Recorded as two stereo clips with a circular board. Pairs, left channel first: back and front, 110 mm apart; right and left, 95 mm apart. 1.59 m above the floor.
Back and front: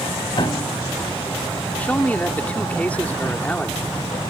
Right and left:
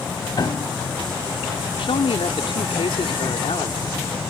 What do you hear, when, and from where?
0.4 s a piano: 135° right
1.8 s a man speaking: 105° right